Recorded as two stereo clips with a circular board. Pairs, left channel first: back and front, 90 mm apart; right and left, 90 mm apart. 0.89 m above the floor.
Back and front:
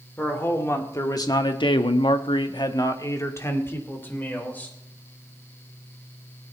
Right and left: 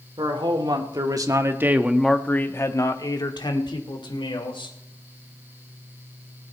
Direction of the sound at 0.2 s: 115° left.